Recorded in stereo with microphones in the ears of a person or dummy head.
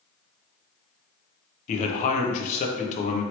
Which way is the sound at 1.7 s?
45° left (ahead or behind).